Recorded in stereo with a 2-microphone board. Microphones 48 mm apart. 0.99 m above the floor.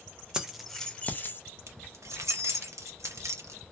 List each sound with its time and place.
0.3 s keys jangling: 15° right (ahead or behind), 0.6 m; by 1.4 s 50° left (ahead or behind), 0.6 m
1.7 s keys jangling: 85° right, 0.6 m